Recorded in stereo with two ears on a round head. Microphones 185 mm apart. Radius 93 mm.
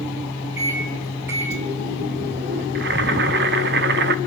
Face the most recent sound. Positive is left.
turn(degrees=-55)  # may be behind; listen again after turning